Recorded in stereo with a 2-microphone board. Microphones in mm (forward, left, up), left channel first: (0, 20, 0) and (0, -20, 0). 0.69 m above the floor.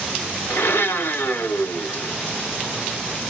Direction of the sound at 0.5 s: 65° left (ahead or behind).